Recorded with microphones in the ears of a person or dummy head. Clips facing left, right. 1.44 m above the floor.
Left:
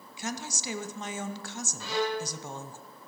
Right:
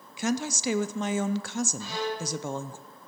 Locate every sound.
0.2 s a woman speaking: 55° right (ahead or behind), 0.6 m
1.8 s a violin: 65° left (ahead or behind), 1.3 m